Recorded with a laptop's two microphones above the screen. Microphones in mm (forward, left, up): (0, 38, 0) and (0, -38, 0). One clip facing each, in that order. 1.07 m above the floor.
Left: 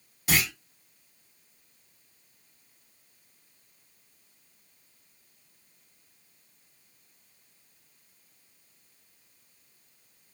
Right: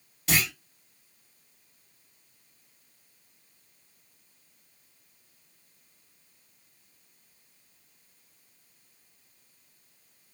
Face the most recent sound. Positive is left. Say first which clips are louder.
# even
turn(degrees=10)  # may be behind; listen again after turning